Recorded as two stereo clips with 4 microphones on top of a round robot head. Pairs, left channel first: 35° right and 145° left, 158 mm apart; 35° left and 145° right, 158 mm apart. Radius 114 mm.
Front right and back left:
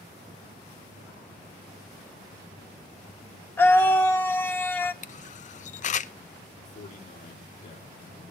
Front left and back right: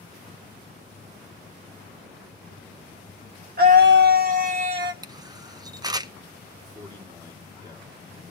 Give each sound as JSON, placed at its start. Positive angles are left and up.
{"t": 3.6, "sound": "a scream", "azimuth_deg": -115, "distance_m": 1.3}
{"t": 5.0, "sound": "a camera shutter", "azimuth_deg": -80, "distance_m": 0.6}
{"t": 6.7, "sound": "a man speaking", "azimuth_deg": -80, "distance_m": 2.0}